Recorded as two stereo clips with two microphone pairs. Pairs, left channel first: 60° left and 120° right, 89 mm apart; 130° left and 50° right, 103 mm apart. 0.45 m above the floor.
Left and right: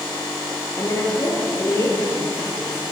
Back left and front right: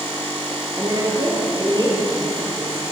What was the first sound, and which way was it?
A woman speaking, 5° left.